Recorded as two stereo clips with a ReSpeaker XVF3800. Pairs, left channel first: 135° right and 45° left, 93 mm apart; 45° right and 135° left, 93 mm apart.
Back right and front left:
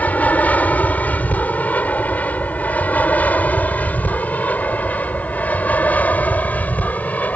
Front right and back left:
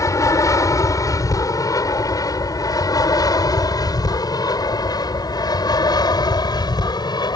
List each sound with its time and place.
0.0 s an aircraft: 70° right; by 7.4 s 65° right